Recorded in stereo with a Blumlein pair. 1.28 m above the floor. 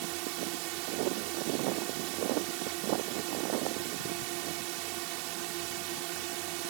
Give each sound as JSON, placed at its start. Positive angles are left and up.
{"t": 0.0, "sound": "a drone", "azimuth_deg": -45}